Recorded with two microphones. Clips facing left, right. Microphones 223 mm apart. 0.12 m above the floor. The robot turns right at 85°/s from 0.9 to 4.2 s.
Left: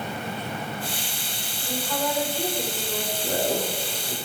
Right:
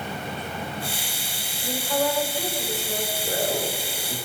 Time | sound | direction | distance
1.6 | a woman speaking | 40° right | 6.5 m
3.2 | a man speaking | 60° left (ahead or behind) | 3.5 m